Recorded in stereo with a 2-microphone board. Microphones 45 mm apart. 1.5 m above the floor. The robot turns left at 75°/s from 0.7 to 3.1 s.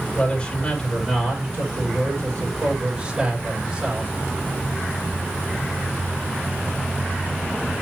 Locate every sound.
0.1 s a man speaking: 15° left, 5 m; by 4.1 s 165° right, 5 m